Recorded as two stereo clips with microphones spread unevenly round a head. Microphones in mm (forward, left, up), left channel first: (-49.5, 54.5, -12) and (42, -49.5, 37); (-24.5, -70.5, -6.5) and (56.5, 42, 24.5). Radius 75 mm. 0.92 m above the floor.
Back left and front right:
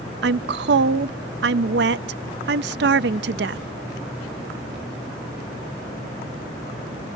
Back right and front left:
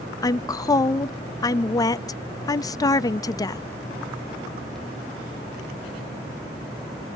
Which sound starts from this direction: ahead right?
A woman speaking, at 0.2 s.